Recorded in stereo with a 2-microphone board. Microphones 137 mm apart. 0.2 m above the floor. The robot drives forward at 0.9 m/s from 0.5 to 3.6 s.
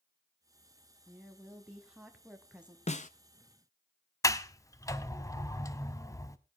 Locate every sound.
1.1 s a woman speaking: 5° right (ahead or behind), 1.5 m
2.9 s a snare drum: 55° left (ahead or behind), 0.6 m; by 3.1 s 70° left (ahead or behind), 0.6 m
4.2 s a sliding door: 25° left (ahead or behind), 0.7 m